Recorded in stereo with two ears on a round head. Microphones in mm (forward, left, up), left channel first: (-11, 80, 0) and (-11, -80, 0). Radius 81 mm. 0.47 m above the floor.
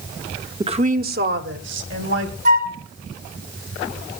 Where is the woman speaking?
20° right (ahead or behind), 0.7 m; by 2.4 s 70° right (ahead or behind), 2.5 m.